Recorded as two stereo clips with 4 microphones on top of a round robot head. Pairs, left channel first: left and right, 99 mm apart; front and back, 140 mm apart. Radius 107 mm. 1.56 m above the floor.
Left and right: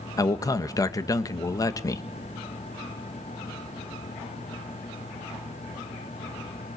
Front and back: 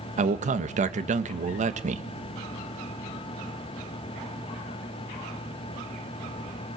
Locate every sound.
0.2 s a man speaking: 145° left, 1.5 m